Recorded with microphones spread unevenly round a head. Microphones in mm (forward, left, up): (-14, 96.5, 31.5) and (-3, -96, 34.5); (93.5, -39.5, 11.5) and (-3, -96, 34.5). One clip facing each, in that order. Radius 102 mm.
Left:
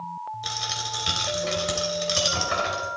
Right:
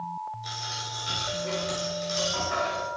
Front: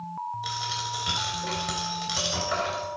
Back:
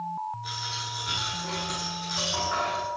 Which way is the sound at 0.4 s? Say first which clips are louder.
Left 4 dB, front 4 dB; 70° left.